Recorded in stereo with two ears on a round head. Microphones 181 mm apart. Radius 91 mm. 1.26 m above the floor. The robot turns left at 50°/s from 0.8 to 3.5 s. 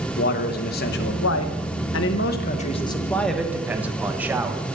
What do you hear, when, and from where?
0.2 s a man speaking: 125° left, 1.0 m; by 4.6 s 10° right, 1.0 m